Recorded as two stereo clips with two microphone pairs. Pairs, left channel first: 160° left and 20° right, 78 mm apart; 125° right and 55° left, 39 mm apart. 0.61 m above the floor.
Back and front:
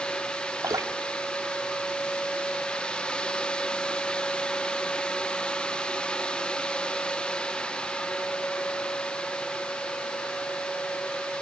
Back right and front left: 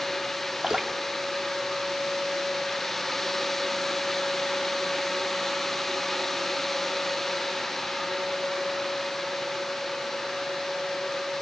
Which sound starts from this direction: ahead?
Dripping, at 0.6 s.